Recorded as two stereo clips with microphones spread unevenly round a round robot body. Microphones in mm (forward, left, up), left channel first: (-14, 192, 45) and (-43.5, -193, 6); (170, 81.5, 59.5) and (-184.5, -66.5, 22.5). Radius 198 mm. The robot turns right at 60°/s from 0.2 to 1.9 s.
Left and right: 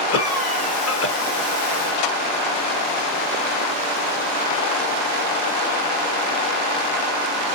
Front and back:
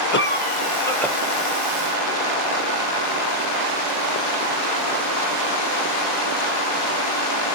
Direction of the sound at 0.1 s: 65° left.